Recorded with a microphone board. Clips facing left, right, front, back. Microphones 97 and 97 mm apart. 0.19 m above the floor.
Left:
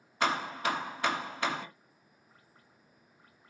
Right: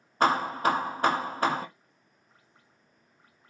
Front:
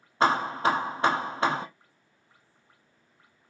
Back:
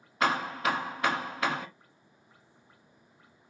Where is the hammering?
50° right, 0.8 m.